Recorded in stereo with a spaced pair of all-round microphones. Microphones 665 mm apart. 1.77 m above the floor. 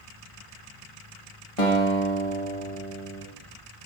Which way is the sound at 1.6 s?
55° left (ahead or behind).